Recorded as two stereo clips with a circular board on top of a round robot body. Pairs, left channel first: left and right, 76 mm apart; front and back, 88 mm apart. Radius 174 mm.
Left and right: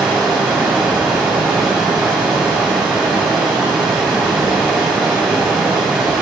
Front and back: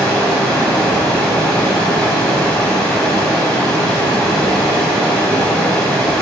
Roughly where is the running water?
Ahead right.